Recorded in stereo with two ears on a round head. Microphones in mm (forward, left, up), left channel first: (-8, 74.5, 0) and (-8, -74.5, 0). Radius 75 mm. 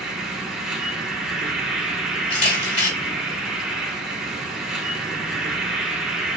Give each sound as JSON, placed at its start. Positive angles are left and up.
{"t": 0.0, "sound": "an insect", "side_deg": -5, "distance_m": 0.9}
{"t": 2.3, "sound": "a camera shutter", "side_deg": 45, "distance_m": 2.0}